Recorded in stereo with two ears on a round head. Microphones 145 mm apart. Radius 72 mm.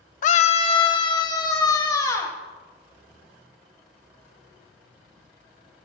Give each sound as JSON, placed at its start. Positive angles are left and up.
{"t": 0.2, "sound": "a scream", "side_deg": 50, "distance_m": 0.7}